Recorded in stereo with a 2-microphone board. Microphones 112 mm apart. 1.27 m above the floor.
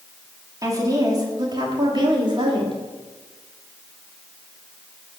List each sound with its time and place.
0.6 s a woman speaking: 30° right (ahead or behind), 3 m; by 2.8 s 50° right (ahead or behind), 3.5 m